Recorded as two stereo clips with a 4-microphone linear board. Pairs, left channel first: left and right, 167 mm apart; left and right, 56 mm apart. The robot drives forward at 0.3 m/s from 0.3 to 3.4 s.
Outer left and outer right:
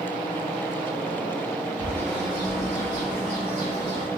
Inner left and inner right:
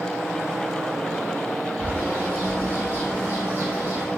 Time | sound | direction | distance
1.8 | a bird | 40° right (ahead or behind) | 2 m